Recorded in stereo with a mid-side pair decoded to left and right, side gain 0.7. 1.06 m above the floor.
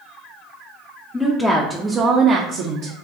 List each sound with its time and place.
1.1 s a woman speaking: 15° left, 0.7 m; by 3.0 s 65° right, 0.7 m